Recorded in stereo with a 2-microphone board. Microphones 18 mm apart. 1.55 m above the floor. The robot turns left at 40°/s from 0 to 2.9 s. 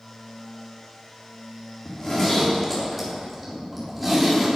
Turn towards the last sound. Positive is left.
turn(degrees=-5)